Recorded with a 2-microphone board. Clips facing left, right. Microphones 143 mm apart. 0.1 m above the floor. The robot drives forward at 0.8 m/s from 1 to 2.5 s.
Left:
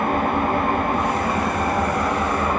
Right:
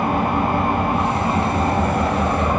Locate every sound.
0.0 s an engine running: 10° right (ahead or behind), 5 m